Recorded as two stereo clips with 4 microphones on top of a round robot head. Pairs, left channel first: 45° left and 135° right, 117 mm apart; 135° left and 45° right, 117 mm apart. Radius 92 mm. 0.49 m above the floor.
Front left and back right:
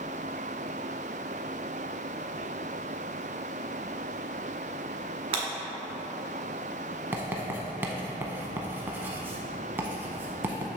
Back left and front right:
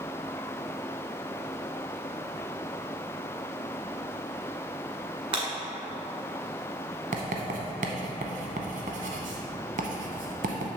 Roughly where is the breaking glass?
Right.